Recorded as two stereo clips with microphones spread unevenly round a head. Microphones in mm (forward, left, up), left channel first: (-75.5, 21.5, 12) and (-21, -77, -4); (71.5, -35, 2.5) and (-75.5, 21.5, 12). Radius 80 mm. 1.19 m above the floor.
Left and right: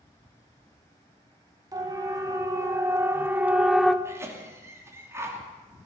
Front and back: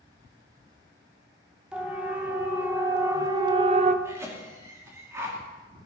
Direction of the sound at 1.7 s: 120° right.